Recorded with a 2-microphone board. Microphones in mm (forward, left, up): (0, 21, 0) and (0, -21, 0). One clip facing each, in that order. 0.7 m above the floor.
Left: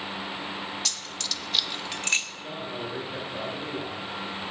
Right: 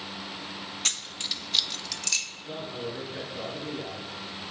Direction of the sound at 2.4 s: 50° left (ahead or behind).